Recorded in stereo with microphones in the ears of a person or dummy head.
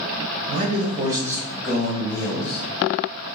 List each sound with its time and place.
0.5 s a man speaking: 45° right (ahead or behind), 1.2 m; by 2.6 s 25° left (ahead or behind), 1.6 m